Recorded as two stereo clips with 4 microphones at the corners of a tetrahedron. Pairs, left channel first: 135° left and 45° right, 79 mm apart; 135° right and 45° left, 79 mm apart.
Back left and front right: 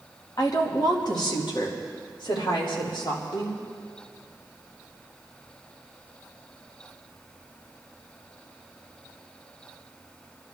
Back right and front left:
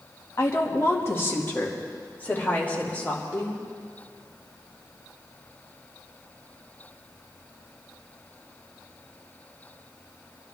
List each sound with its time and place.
0.4 s a woman speaking: 170° left, 1.7 m; by 3.6 s 150° left, 3 m